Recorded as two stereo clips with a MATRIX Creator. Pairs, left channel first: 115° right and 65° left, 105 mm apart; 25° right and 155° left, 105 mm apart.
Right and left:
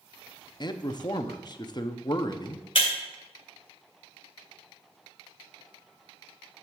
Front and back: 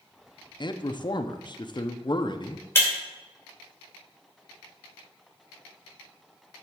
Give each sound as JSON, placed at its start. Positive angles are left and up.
{"t": 0.6, "sound": "a man speaking", "azimuth_deg": -65, "distance_m": 0.7}
{"t": 2.8, "sound": "breaking glass", "azimuth_deg": -85, "distance_m": 2.5}